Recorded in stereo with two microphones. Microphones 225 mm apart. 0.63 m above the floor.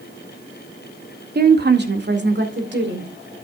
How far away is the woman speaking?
About 1.6 m.